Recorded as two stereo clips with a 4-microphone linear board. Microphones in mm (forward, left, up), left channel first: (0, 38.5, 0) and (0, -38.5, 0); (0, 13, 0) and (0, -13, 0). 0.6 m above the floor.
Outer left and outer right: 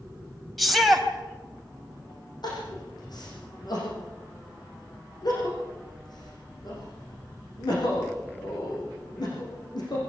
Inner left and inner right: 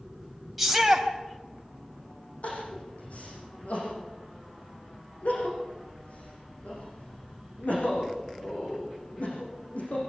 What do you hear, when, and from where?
0.6 s a shout: centre (ahead or behind), 3.5 m
2.4 s crying: 60° left (ahead or behind), 9 m